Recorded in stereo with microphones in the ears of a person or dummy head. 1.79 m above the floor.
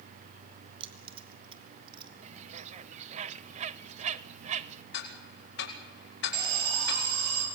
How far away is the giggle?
No giggle in this recording.